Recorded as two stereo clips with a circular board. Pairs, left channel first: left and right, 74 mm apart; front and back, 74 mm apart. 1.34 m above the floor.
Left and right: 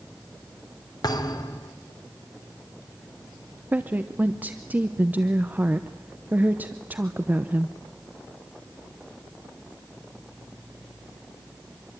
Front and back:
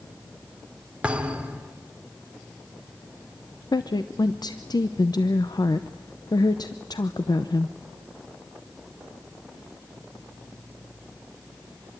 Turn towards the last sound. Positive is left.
turn(degrees=-20)